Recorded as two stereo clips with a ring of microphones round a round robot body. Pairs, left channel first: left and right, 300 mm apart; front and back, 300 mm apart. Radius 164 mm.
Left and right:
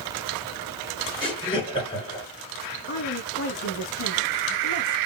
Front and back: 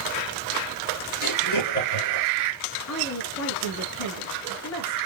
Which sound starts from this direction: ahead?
Laughter, at 1.2 s.